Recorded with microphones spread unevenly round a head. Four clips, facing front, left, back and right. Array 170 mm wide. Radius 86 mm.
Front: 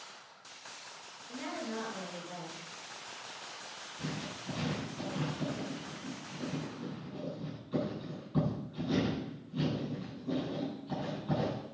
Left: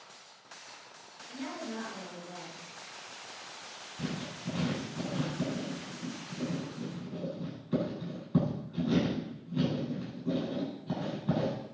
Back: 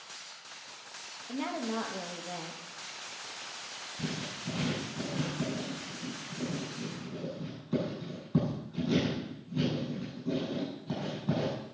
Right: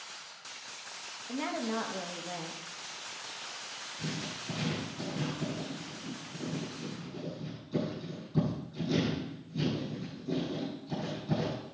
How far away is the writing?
About 8 m.